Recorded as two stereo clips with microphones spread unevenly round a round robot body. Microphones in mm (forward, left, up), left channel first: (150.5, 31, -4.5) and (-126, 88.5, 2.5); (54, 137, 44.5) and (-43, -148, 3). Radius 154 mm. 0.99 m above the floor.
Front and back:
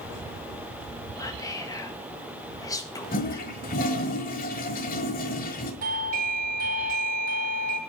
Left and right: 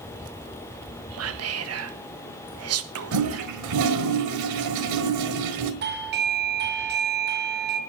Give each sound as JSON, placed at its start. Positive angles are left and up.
{"t": 1.2, "sound": "whispering", "azimuth_deg": -90, "distance_m": 1.4}
{"t": 3.1, "sound": "a toilet flushing", "azimuth_deg": -75, "distance_m": 1.5}
{"t": 5.8, "sound": "a doorbell", "azimuth_deg": -140, "distance_m": 1.3}